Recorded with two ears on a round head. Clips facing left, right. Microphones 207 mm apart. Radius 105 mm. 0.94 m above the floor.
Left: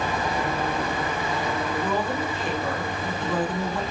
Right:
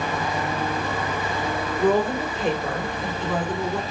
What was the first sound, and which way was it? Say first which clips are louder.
A woman speaking: right 10 dB; 50° right (ahead or behind).